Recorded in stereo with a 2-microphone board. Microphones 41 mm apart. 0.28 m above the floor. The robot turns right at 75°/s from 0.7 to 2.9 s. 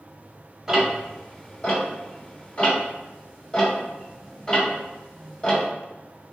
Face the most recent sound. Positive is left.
turn(degrees=20)  # may be behind; listen again after turning